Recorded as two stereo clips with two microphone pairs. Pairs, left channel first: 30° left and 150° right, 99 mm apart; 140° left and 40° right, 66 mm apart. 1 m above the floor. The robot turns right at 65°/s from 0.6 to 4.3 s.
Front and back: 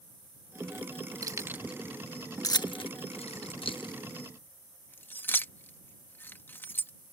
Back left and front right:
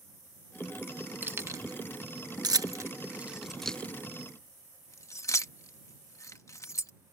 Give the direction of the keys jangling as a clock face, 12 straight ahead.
3 o'clock.